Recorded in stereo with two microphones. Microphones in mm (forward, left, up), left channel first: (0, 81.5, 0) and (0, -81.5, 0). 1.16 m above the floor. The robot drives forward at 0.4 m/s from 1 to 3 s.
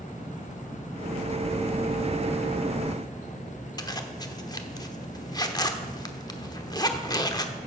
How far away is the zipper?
About 0.9 m.